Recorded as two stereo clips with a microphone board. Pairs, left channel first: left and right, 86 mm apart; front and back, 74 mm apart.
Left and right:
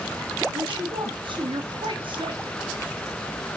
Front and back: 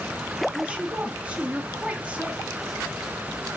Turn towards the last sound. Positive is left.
turn(degrees=-105)